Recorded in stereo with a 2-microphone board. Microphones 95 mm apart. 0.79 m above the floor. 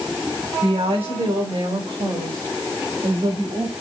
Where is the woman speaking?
75° right (ahead or behind), 3.5 m; by 3.7 s 60° right (ahead or behind), 5 m.